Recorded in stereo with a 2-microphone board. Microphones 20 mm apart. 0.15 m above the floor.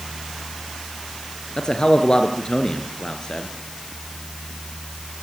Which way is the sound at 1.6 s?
45° left (ahead or behind).